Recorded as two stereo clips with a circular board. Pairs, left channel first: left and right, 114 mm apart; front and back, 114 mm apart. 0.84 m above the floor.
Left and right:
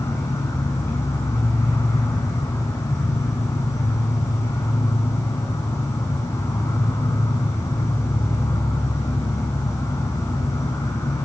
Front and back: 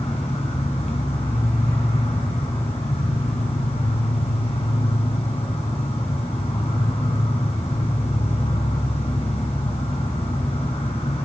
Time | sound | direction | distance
0.0 | an insect | 25° left | 3.5 m